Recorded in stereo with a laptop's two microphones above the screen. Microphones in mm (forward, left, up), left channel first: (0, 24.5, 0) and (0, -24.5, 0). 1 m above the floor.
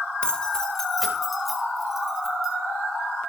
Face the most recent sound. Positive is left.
turn(degrees=-10)  # may be behind; listen again after turning